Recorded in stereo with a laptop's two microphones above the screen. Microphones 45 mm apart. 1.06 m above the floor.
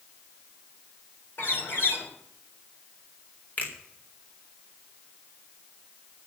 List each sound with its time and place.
1.4 s a bird: 50° left (ahead or behind), 3 m
3.6 s a finger snap: 35° left (ahead or behind), 5 m